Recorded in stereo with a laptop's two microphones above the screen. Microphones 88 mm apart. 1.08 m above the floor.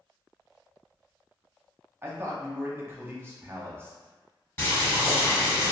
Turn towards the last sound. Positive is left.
turn(degrees=25)  # may be behind; listen again after turning